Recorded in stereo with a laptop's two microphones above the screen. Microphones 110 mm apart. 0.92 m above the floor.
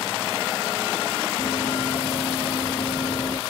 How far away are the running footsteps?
About 2.5 m.